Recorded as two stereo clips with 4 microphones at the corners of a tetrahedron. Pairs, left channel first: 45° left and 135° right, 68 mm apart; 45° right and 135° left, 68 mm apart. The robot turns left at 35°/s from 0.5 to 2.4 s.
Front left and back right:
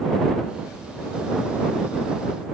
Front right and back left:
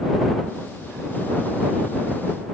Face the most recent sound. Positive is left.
No sound to turn to.